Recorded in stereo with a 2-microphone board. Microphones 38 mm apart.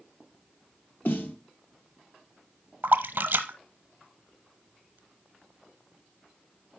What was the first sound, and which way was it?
A snare drum, 65° left (ahead or behind).